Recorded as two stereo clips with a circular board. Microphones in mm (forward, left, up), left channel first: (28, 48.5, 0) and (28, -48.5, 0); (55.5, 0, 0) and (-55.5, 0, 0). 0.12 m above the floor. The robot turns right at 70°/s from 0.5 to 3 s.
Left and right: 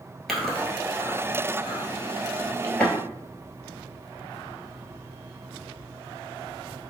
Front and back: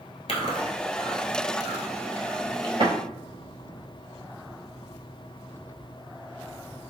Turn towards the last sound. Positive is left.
turn(degrees=180)